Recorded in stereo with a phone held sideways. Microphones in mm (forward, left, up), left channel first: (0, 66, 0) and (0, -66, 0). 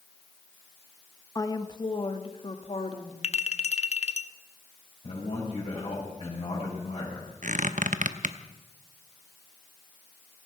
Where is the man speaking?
55° left (ahead or behind), 5.5 m.